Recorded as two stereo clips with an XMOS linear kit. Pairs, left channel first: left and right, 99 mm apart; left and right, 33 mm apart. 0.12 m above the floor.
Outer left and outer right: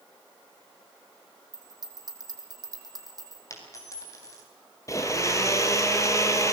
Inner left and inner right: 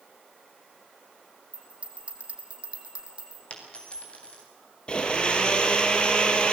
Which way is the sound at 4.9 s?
30° left (ahead or behind).